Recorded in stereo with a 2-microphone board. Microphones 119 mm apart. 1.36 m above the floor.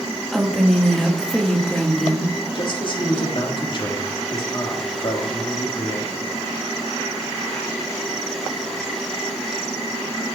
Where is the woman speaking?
5° left (ahead or behind), 2 m.